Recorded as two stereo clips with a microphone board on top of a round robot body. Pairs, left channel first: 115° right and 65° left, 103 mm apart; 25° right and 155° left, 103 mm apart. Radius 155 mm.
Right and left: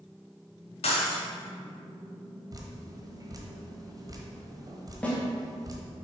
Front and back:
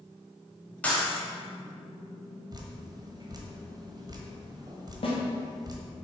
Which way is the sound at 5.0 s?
35° right.